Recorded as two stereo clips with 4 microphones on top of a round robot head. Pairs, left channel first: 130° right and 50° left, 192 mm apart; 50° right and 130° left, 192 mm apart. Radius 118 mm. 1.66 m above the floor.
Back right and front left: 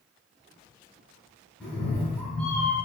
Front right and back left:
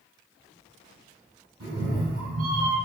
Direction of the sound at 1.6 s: 145° left.